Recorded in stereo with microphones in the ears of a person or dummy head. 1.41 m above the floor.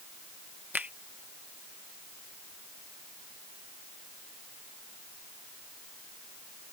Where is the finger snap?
5° right (ahead or behind).